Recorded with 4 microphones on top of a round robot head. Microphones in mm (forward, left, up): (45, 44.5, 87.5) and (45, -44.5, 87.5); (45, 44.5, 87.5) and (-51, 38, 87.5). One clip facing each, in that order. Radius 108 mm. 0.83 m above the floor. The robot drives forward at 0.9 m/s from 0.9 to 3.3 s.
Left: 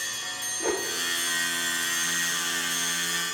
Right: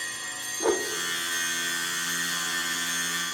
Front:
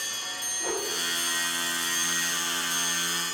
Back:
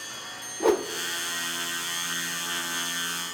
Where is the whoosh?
155° right, 0.5 m.